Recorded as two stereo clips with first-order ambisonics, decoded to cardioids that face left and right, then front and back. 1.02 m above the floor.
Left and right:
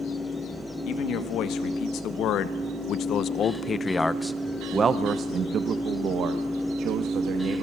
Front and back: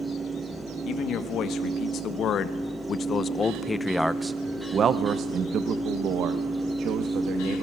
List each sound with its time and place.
0.9 s a man speaking: 50° left, 1.9 m; by 7.6 s 135° right, 2 m